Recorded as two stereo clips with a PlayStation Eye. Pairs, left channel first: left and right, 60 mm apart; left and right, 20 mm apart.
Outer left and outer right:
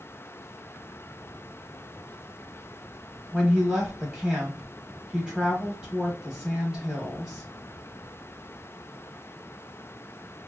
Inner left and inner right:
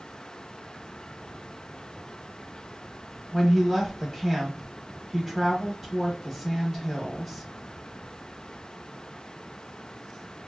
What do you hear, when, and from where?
3.3 s a woman speaking: 10° right (ahead or behind), 1.0 m